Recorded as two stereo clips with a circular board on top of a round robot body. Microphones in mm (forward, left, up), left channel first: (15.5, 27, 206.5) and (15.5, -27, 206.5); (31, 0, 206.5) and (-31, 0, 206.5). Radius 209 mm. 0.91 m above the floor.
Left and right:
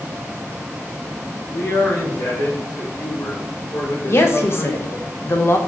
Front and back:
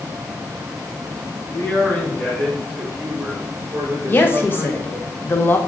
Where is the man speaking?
55° left, 2.5 m; by 5.1 s 125° left, 5 m.